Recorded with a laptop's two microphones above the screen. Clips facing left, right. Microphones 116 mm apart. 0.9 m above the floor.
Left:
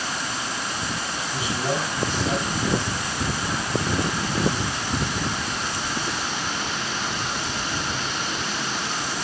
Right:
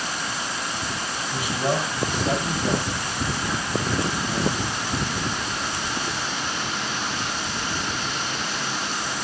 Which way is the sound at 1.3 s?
45° right (ahead or behind).